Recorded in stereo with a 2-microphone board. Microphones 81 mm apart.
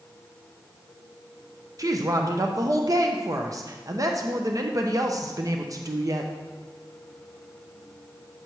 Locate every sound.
1.8 s a woman speaking: 45° right (ahead or behind), 0.7 m